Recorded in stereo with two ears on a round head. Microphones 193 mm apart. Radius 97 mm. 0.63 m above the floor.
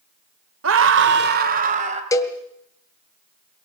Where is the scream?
65° right (ahead or behind), 1.9 m; by 2.0 s 30° right (ahead or behind), 2.5 m.